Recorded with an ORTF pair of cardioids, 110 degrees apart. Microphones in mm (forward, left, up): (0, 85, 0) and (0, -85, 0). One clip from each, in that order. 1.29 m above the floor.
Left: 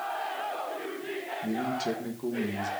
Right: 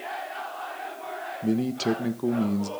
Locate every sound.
1.4 s a man speaking: 45° right, 1.5 m